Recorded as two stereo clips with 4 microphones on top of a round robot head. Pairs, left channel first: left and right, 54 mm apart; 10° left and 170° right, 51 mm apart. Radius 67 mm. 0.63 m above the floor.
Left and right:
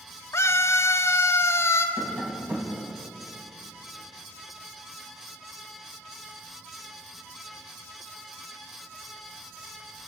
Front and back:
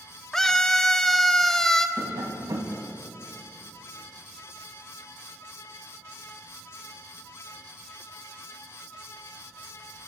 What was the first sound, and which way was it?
A scream, 90° left.